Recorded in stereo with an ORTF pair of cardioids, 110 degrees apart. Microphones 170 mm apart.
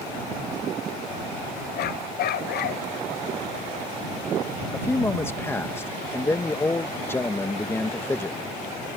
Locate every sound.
1.8 s a dog barking: 70° left
4.7 s a man speaking: 15° left